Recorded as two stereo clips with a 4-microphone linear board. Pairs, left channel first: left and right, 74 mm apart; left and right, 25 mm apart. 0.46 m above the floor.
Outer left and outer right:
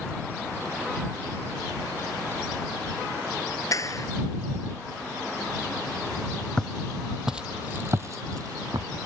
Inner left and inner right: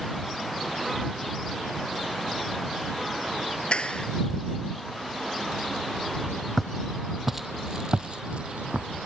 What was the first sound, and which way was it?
A clap, 45° left (ahead or behind).